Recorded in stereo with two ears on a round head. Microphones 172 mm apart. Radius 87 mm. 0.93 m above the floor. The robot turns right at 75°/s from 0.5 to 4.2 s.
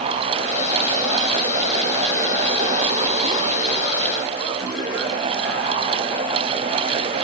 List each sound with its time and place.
Only background noise.